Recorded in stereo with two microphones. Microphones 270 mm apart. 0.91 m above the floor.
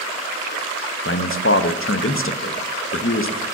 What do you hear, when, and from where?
1.1 s a man speaking: 50° left (ahead or behind), 0.5 m